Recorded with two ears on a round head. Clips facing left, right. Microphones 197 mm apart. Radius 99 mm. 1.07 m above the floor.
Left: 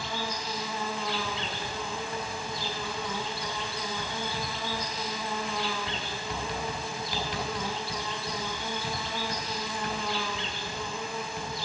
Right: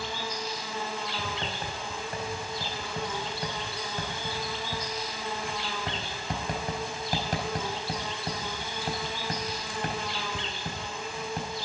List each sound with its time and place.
0.0 s an insect: 75° left (ahead or behind), 3.5 m
1.2 s writing: 45° right (ahead or behind), 4 m